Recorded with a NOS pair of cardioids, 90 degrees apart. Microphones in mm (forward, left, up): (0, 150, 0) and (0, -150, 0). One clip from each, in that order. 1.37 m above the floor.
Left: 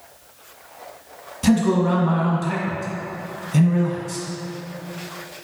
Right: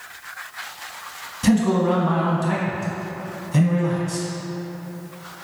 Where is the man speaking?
5° left, 0.9 m.